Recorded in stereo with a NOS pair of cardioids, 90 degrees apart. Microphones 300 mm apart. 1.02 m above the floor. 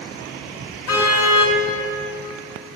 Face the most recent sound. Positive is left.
turn(degrees=50)